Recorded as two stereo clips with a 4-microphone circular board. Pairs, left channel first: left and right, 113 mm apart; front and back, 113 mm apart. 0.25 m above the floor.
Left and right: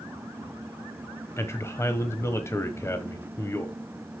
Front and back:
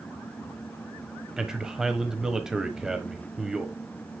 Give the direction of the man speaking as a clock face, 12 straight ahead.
9 o'clock.